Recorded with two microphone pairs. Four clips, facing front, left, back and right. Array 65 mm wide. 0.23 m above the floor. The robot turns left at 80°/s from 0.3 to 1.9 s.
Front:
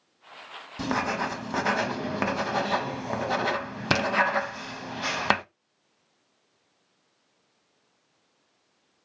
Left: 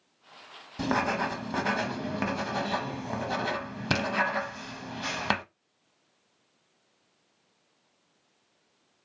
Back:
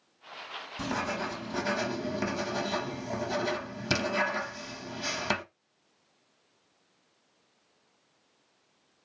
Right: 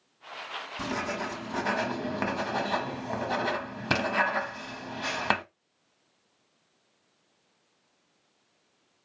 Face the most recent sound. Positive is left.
turn(degrees=-20)